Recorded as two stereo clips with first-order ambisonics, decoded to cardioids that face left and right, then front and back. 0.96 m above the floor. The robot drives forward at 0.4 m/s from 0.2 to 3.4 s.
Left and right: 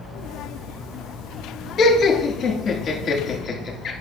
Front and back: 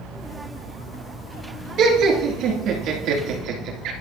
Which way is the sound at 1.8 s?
155° left.